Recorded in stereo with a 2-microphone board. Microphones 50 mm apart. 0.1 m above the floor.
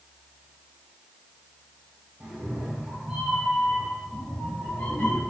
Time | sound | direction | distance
2.2 | a cat meowing | 20° right (ahead or behind) | 1.2 m